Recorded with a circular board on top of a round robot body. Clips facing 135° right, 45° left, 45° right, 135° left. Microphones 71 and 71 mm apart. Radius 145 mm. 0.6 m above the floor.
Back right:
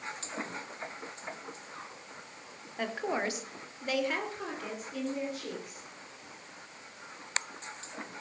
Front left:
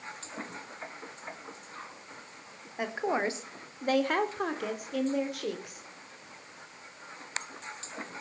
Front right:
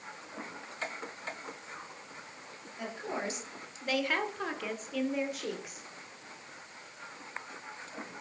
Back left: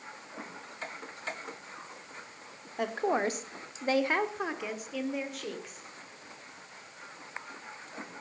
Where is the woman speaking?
120° left, 2.5 m; by 5.9 s 35° left, 4 m.